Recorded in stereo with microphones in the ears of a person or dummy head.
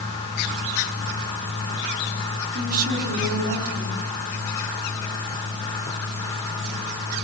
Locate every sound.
2.5 s a woman speaking: 50° right (ahead or behind), 4.5 m